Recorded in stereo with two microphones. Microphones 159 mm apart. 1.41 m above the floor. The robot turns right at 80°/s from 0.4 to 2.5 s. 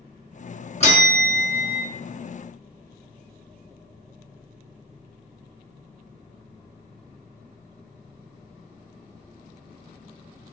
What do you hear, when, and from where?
0.8 s a bell: 130° left, 1.0 m; by 1.8 s 145° right, 1.0 m